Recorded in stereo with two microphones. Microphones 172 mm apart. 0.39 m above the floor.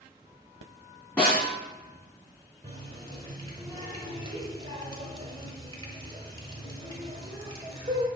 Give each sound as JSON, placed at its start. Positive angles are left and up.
{"t": 1.2, "sound": "a snare drum", "side_deg": 5, "distance_m": 3.0}
{"t": 2.6, "sound": "a running tap", "side_deg": -30, "distance_m": 1.2}